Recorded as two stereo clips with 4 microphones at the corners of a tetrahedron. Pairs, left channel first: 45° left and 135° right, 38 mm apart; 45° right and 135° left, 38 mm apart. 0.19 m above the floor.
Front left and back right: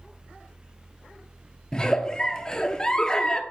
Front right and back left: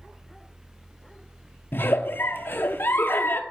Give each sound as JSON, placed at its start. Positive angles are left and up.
{"t": 1.7, "sound": "a giggle", "azimuth_deg": -25, "distance_m": 0.5}